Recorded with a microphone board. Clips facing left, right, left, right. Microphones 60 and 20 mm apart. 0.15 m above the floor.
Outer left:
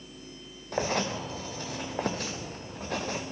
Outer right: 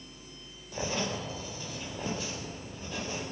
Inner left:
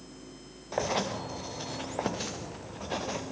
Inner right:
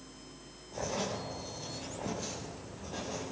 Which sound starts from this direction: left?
Writing, at 0.7 s.